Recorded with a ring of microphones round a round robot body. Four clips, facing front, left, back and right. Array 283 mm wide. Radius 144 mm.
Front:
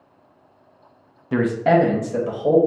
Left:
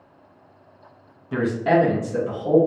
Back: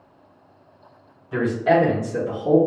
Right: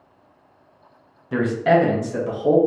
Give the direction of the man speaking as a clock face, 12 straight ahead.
12 o'clock.